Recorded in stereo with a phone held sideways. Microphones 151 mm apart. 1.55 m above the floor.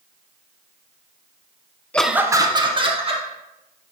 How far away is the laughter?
About 0.6 m.